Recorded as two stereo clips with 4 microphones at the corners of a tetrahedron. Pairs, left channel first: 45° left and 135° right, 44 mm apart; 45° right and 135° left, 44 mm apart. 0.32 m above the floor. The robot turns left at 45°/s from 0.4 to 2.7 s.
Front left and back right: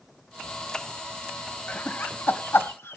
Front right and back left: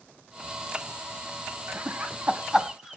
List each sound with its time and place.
1.7 s laughter: 100° left, 1.7 m; by 3.0 s 55° left, 1.7 m